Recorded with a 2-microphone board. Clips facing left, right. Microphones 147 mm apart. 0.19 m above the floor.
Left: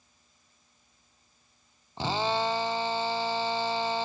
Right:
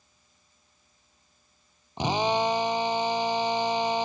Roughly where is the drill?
Centre.